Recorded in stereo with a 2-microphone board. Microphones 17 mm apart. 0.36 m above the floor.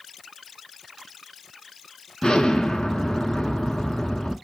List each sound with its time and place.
2.2 s an explosion: 80° left, 0.6 m